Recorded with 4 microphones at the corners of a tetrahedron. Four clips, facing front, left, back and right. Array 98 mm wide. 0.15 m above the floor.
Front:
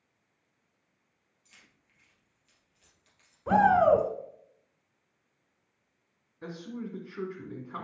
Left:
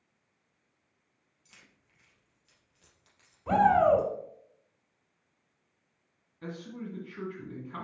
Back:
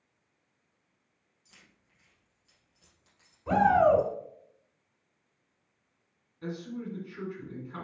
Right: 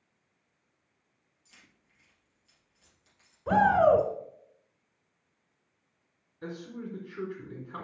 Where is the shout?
25° right, 1.4 m.